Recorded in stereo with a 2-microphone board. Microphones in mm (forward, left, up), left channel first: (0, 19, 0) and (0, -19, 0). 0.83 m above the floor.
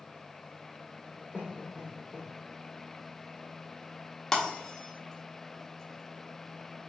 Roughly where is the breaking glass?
Centre.